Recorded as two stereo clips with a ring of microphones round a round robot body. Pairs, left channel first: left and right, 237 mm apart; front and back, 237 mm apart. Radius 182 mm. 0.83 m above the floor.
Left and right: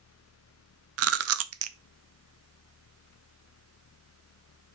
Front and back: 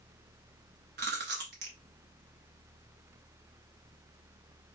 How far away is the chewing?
About 0.5 m.